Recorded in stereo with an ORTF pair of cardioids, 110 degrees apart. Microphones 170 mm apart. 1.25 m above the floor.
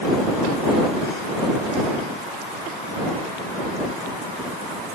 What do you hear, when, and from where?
Only background noise.